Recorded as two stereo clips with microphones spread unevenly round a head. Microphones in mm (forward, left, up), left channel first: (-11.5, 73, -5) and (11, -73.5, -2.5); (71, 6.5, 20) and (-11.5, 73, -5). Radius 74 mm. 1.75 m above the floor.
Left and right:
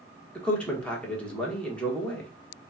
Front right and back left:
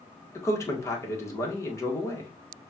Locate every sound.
0.3 s a man speaking: 15° left, 1.6 m